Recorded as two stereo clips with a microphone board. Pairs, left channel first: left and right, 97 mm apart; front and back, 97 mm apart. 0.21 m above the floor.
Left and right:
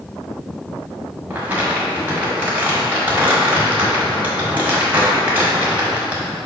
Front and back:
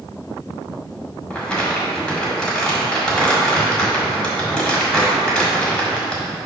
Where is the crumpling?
65° right, 1.6 m.